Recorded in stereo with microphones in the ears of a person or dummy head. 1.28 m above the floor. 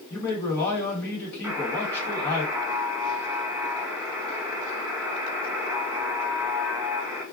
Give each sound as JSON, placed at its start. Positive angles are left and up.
{"t": 0.1, "sound": "a man speaking", "side_deg": 20, "distance_m": 1.5}
{"t": 1.4, "sound": "a buzzer", "side_deg": 0, "distance_m": 1.0}